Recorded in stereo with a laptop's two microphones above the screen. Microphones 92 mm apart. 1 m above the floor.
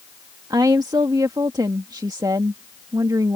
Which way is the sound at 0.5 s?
45° right (ahead or behind).